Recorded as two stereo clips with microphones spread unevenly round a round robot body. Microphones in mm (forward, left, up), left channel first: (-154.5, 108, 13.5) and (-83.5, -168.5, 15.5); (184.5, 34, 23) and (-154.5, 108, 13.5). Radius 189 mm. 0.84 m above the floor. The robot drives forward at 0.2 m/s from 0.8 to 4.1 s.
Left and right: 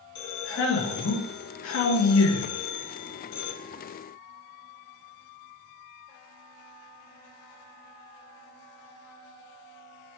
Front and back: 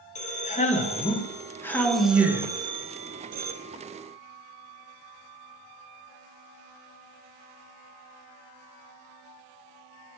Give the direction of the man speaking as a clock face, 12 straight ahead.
10 o'clock.